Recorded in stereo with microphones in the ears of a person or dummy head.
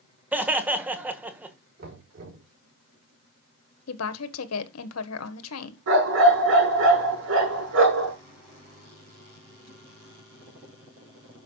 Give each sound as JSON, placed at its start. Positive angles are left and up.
{"t": 0.3, "sound": "laughter", "side_deg": -5, "distance_m": 1.5}
{"t": 1.8, "sound": "knocking", "side_deg": -45, "distance_m": 6.0}
{"t": 3.9, "sound": "a woman speaking", "side_deg": 80, "distance_m": 1.5}
{"t": 5.9, "sound": "a dog barking", "side_deg": -70, "distance_m": 6.5}